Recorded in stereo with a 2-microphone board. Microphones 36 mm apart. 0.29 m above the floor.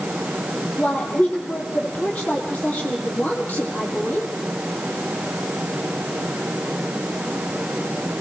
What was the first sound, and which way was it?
A woman speaking, 35° left (ahead or behind).